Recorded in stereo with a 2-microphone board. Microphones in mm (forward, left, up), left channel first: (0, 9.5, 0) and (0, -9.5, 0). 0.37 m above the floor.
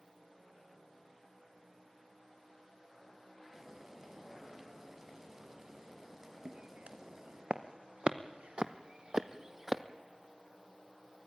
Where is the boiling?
25° right (ahead or behind), 3.5 m.